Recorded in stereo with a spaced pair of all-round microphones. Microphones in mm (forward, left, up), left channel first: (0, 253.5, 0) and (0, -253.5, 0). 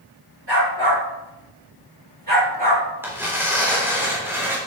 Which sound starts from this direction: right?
A dog barking, at 0.5 s.